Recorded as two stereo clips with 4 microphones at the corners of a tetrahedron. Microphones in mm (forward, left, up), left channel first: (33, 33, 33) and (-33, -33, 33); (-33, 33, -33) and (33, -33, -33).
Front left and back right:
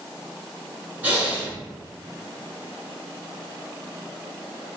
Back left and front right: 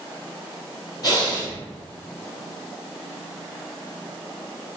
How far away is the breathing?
About 1.0 m.